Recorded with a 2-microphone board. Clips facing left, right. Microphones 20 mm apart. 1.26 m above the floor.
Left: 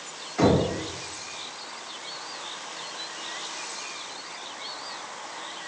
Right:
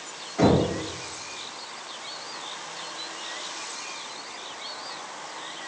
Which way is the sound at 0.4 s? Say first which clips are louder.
Right 1 dB; 40° left (ahead or behind).